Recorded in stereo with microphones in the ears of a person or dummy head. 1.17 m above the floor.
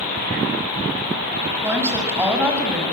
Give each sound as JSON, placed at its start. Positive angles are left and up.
{"t": 1.6, "sound": "a woman speaking", "side_deg": -10, "distance_m": 6.5}